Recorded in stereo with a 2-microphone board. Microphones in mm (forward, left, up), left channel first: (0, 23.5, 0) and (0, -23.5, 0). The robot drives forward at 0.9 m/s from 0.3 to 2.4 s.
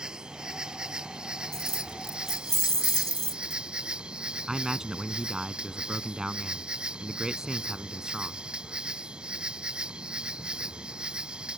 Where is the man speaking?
15° right (ahead or behind).